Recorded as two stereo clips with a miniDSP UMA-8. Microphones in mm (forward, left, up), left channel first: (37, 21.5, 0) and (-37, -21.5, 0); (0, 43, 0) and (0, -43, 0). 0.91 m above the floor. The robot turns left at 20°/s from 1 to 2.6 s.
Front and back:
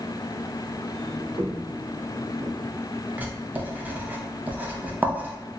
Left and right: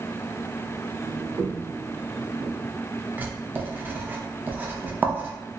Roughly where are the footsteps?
Behind right.